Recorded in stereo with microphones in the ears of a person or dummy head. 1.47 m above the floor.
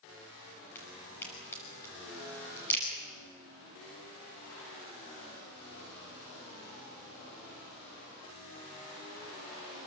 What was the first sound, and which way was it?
A crack, 15° left (ahead or behind).